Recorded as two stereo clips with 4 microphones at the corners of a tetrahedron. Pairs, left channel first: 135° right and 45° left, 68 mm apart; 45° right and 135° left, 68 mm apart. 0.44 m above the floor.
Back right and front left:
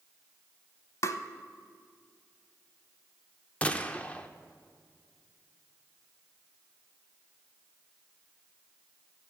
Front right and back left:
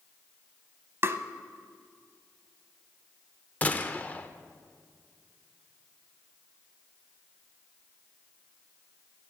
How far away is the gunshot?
About 0.5 m.